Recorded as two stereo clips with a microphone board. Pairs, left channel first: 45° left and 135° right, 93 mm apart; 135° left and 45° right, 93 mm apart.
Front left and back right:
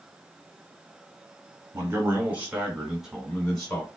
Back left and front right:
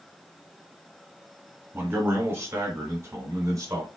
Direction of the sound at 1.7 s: 95° right.